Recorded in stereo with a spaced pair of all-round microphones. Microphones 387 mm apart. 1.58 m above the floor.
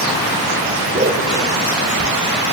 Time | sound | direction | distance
0.9 | a whoosh | 20° right (ahead or behind) | 1.3 m